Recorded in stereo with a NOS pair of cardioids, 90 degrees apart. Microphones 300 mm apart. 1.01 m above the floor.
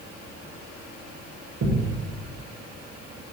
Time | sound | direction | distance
1.6 | a thud | 50° right | 1.9 m